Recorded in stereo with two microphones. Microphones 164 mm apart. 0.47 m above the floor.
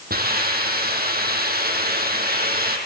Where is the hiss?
70° right (ahead or behind), 7 m.